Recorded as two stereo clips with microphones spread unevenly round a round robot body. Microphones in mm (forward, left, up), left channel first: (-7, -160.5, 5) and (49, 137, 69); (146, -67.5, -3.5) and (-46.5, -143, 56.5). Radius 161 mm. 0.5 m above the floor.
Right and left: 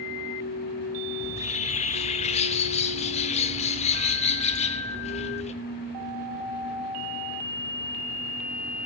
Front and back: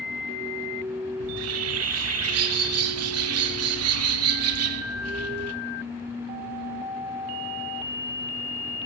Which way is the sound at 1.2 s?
165° right.